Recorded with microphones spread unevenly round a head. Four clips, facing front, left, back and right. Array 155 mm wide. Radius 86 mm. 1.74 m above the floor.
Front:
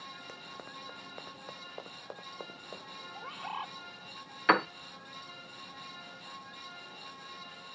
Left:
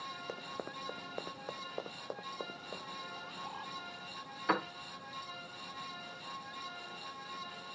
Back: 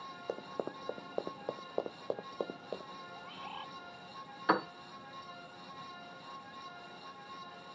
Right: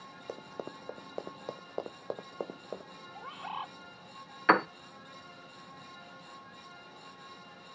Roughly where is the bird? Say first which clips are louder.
Right 4 dB, front 8 dB; ahead right.